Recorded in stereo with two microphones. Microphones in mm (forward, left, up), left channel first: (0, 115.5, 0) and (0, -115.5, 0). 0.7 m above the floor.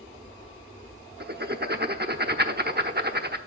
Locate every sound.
1.2 s writing: 45° right (ahead or behind), 0.8 m